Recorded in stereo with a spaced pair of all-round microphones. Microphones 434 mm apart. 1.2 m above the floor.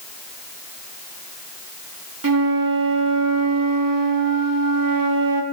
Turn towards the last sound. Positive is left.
turn(degrees=-50)  # may be behind; listen again after turning